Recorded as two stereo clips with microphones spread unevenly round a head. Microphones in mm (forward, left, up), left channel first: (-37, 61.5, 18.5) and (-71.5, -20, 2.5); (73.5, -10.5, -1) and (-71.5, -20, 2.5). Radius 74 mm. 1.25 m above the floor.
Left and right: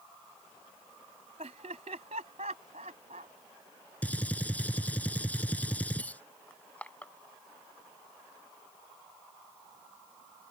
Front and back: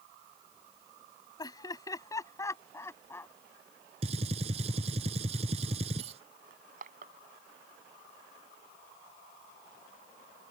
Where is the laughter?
60° right; by 3.3 s 70° right.